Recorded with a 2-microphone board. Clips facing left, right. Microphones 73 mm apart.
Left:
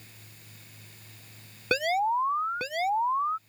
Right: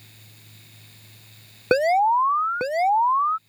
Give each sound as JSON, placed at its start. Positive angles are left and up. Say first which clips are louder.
{"t": 1.7, "sound": "an alarm", "louder": "right 8 dB", "side_deg": -30}